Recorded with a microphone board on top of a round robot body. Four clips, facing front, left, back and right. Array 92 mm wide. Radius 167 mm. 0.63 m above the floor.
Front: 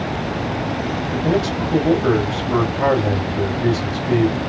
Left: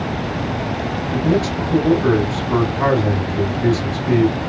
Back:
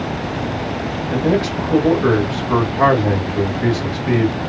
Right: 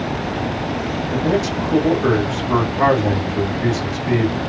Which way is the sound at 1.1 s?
155° right.